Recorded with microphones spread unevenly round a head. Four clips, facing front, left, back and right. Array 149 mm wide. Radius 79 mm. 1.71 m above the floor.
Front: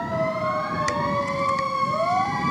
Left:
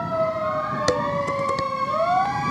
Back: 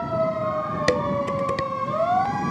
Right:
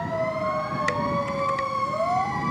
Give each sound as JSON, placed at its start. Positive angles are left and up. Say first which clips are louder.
{"t": 0.9, "sound": "dishes clattering", "louder": "left 5 dB, back 2 dB", "azimuth_deg": 140}